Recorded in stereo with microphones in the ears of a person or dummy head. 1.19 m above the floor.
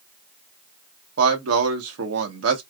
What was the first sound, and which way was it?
A man speaking, 80° right.